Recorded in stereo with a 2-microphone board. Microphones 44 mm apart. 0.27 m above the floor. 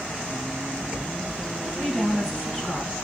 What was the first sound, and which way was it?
A woman speaking, 10° left (ahead or behind).